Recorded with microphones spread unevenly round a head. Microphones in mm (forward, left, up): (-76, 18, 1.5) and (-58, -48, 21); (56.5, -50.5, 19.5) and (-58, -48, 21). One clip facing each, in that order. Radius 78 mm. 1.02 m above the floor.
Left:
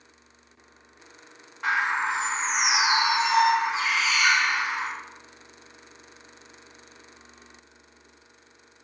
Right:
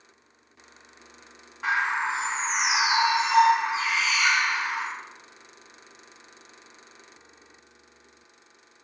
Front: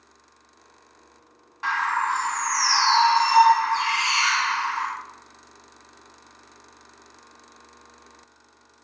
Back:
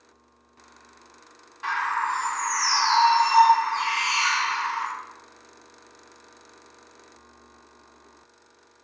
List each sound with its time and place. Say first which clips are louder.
1.6 s a bird: left 1 dB, front 2 dB; 10° right, 1.1 m